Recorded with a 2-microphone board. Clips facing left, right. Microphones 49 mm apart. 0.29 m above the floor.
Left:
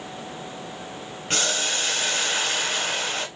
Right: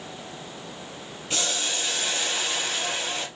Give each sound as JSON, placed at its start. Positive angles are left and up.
{"t": 1.3, "sound": "boiling", "side_deg": 55, "distance_m": 1.3}